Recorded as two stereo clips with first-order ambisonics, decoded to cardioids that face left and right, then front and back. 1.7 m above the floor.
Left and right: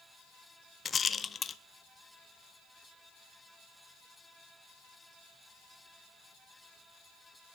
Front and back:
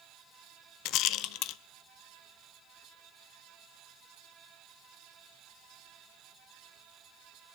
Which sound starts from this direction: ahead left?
A rattle, at 0.8 s.